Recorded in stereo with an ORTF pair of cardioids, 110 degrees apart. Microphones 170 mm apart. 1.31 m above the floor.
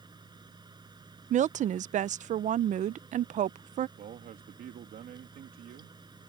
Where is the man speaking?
60° right.